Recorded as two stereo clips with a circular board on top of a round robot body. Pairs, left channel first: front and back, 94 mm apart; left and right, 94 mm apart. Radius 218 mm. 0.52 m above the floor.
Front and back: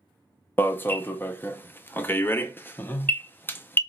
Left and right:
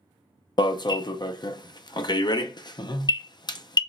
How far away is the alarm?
About 0.6 m.